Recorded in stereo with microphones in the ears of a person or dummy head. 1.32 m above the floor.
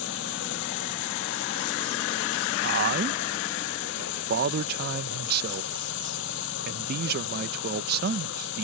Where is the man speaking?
60° right (ahead or behind).